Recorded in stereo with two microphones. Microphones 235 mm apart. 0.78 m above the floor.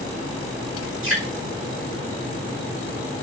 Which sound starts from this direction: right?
Dripping, at 1.0 s.